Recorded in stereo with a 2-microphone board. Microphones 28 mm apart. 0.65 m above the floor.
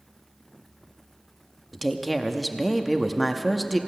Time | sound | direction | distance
1.7 | a woman speaking | centre (ahead or behind) | 0.7 m